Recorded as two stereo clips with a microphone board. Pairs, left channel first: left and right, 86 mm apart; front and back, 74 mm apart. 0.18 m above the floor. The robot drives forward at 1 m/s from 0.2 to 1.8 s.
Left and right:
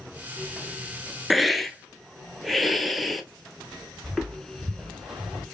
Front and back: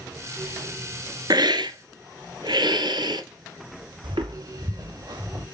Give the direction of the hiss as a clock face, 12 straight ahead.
6 o'clock.